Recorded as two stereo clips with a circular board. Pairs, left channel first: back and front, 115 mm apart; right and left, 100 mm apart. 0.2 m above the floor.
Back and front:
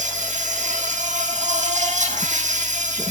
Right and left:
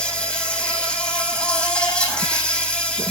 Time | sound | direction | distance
0.0 | an insect | 10° right | 5.5 m